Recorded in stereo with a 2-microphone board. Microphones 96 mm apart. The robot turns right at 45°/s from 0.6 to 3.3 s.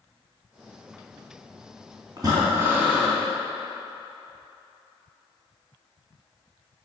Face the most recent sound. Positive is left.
turn(degrees=5)